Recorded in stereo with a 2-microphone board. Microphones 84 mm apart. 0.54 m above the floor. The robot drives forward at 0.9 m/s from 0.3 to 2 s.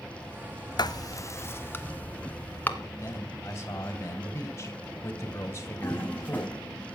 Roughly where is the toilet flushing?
Centre.